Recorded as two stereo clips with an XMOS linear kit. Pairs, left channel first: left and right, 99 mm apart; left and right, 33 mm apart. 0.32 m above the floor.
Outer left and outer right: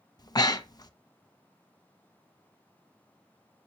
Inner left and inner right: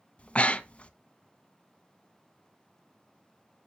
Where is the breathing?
40° left (ahead or behind), 0.6 m.